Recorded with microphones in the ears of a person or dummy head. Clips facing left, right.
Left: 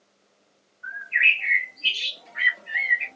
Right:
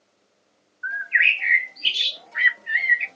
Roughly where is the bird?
Centre.